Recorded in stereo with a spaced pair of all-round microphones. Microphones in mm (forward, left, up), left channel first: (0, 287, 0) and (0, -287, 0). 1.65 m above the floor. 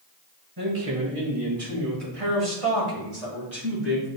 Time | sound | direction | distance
0.6 | a man speaking | 55° right (ahead or behind) | 1.9 m